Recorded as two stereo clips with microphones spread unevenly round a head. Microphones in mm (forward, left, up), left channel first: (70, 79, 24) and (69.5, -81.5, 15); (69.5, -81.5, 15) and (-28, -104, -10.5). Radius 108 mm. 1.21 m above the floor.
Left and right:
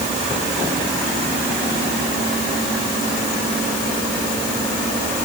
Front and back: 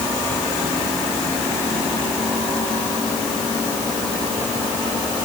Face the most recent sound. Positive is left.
No sound to turn to.